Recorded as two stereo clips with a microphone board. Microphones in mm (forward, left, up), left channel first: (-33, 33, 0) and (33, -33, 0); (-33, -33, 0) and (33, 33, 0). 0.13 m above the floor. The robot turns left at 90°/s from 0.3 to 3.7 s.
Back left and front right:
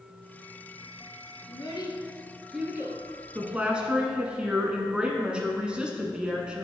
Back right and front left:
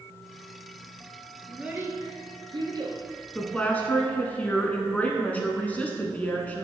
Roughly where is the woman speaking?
Right.